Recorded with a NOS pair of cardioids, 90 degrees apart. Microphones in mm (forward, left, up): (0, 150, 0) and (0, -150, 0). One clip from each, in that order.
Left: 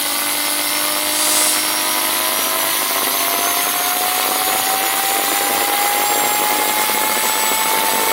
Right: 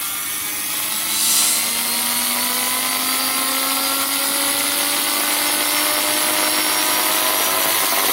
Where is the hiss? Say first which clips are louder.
Right 1 dB; 5° right, 1.5 m.